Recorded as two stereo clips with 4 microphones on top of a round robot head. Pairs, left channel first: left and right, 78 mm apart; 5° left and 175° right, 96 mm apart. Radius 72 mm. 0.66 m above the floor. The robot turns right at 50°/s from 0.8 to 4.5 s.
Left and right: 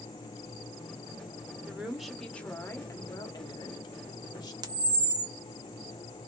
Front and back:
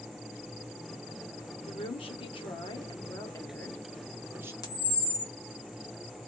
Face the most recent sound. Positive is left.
turn(degrees=-55)